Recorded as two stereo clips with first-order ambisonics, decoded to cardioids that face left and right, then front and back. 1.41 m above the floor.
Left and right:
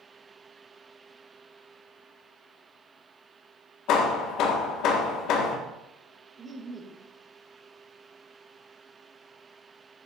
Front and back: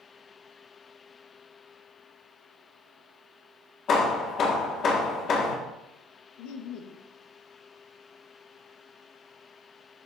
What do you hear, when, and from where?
3.9 s hammering: 55° left, 1.6 m
6.4 s laughter: 15° right, 1.2 m